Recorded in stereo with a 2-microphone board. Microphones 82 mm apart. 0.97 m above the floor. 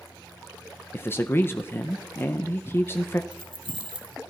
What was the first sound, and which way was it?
A man speaking, 30° left (ahead or behind).